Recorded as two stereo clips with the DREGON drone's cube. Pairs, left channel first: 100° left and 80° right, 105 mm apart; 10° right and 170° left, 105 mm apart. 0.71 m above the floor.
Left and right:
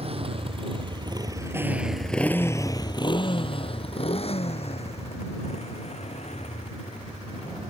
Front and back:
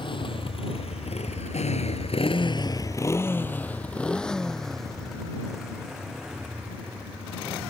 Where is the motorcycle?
50° right; by 7.7 s 90° left.